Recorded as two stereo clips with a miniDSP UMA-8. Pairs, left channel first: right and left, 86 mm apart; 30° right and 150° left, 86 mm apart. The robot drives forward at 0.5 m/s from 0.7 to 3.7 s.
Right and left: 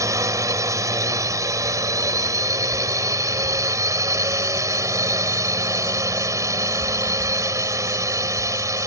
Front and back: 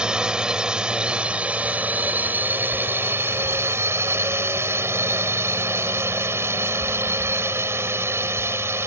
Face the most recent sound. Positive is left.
turn(degrees=110)